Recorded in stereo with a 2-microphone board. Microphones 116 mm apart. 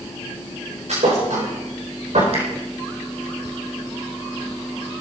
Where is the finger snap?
65° right (ahead or behind), 5 m.